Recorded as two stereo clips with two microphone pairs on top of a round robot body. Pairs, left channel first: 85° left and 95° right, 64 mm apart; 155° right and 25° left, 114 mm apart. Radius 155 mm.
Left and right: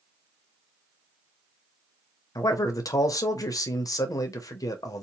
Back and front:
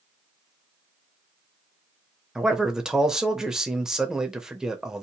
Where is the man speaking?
105° left, 0.7 m.